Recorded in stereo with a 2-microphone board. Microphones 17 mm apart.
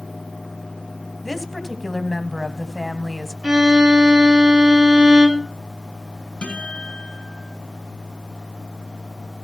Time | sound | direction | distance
1.2 | a woman speaking | 5° left (ahead or behind) | 1.3 m
3.4 | a violin | 65° right (ahead or behind) | 1.7 m
6.4 | a guitar | 75° left (ahead or behind) | 6.5 m